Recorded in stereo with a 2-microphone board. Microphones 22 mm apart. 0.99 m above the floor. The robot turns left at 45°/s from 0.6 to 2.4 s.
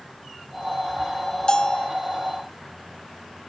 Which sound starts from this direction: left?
A bell, at 1.5 s.